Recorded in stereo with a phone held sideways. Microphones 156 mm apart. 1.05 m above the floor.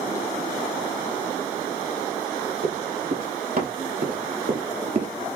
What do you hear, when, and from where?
2.6 s running footsteps: 65° right (ahead or behind), 2.5 m; by 5.1 s 50° right (ahead or behind), 1.5 m